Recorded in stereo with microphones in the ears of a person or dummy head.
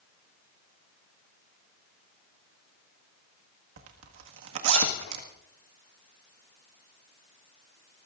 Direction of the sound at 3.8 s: 75° right (ahead or behind).